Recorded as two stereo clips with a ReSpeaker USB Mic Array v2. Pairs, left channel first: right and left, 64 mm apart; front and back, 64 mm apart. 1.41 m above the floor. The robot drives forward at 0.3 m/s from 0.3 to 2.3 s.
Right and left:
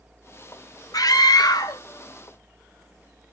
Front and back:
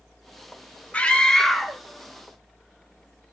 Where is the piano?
I don't hear a piano.